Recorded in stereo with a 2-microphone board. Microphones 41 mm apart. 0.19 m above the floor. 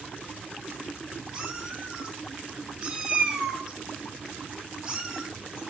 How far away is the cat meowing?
About 0.9 m.